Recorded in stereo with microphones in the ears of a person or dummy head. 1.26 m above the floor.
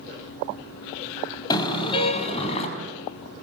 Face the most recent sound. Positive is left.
turn(degrees=40)  # may be behind; listen again after turning